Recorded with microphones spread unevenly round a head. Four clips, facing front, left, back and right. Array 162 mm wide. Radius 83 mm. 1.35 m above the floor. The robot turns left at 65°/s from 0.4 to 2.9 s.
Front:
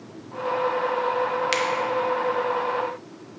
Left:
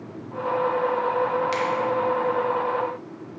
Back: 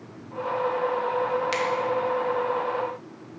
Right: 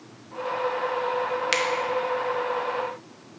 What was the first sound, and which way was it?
A finger snap, 60° right.